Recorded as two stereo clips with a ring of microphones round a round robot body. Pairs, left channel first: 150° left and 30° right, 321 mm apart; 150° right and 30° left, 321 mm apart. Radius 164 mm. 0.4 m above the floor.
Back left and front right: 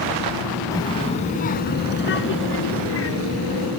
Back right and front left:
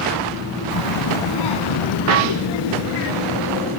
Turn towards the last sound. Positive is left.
turn(degrees=-165)